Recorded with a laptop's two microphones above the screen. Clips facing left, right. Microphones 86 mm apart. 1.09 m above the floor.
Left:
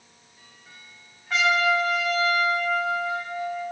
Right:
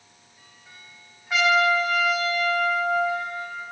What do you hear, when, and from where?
1.3 s a trumpet: 5° right (ahead or behind), 0.7 m